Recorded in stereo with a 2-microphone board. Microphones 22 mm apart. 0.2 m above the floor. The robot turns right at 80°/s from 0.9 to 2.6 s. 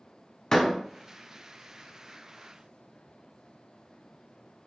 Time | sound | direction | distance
0.5 | a door slam | 30° left (ahead or behind) | 0.7 m